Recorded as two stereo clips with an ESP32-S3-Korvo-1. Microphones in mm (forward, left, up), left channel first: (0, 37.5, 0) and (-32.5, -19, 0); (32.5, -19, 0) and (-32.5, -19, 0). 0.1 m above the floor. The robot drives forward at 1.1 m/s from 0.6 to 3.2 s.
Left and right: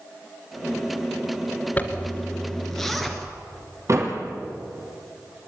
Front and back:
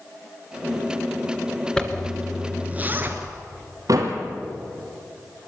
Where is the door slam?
155° right, 3 m.